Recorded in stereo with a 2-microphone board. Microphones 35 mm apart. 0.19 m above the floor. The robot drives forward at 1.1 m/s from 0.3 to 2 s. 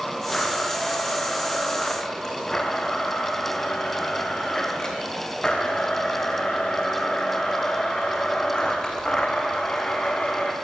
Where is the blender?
15° left (ahead or behind), 6.5 m; by 10.5 s 25° left (ahead or behind), 5 m.